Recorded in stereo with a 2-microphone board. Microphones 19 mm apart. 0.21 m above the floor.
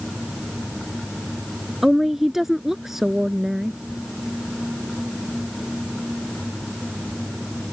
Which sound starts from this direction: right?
A woman speaking, at 1.8 s.